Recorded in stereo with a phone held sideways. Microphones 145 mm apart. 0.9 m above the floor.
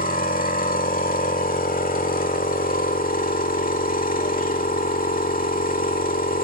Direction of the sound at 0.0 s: 75° left (ahead or behind).